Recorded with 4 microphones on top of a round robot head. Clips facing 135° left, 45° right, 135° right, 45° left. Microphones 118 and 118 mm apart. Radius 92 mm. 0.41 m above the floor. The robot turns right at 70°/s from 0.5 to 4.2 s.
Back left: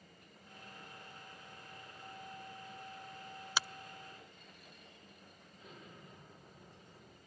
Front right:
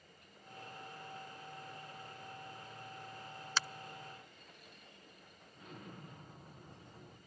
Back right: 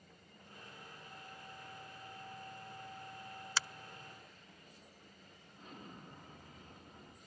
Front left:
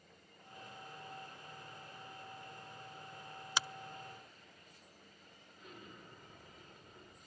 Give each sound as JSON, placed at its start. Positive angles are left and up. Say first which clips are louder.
{"t": 3.6, "sound": "a finger snap", "louder": "back left 1 dB, front left 2 dB", "azimuth_deg": 85, "distance_m": 0.5}
{"t": 5.5, "sound": "an explosion", "louder": "front right 4 dB, back right 2 dB", "azimuth_deg": -85, "distance_m": 5.5}